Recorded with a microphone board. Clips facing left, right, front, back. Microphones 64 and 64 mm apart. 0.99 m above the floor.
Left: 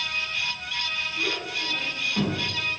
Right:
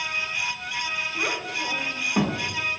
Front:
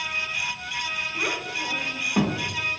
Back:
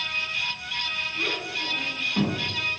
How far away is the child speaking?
About 2 m.